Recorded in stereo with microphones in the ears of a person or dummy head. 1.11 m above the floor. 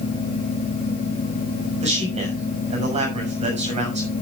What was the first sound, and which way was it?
A man speaking, 35° right (ahead or behind).